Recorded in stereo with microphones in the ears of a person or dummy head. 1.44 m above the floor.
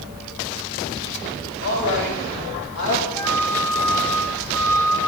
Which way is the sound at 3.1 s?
15° left (ahead or behind).